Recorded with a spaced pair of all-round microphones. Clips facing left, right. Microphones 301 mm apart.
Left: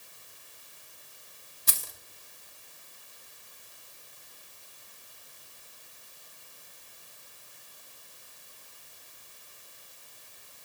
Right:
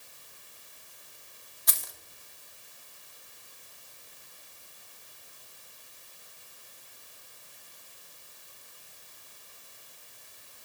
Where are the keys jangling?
35° left (ahead or behind), 0.8 m.